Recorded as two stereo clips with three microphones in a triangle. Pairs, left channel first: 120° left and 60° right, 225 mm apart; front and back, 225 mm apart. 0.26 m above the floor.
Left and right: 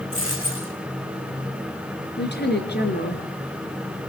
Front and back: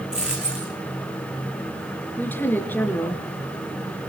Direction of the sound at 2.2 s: 80° left.